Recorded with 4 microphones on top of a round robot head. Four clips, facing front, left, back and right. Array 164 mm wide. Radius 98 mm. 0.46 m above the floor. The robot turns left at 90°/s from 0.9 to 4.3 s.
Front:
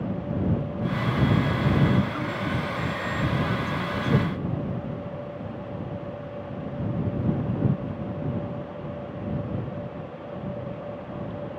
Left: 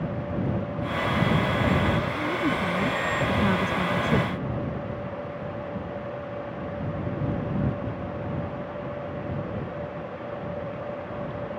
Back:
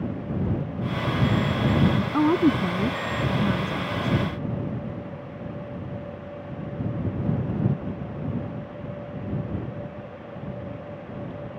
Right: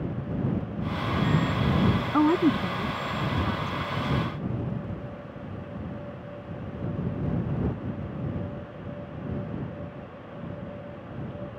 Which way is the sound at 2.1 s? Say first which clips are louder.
Right 5 dB, back 9 dB; 135° right.